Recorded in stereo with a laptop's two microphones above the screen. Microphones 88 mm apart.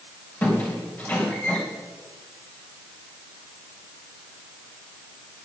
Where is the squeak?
20° left (ahead or behind), 3.5 m.